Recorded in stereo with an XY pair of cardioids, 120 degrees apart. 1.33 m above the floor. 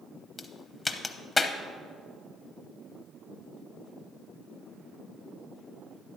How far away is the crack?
About 0.7 m.